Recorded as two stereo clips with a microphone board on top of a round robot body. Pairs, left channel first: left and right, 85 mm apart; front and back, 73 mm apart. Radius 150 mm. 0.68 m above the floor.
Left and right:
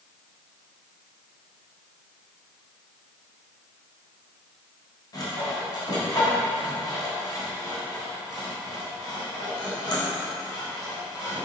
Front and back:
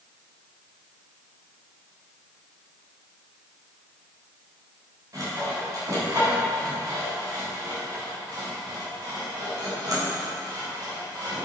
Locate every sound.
5.1 s sawing: 135° left, 3.5 m